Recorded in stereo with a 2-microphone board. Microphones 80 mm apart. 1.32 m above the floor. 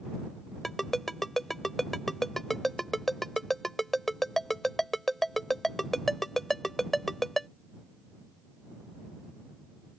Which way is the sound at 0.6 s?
5° left (ahead or behind).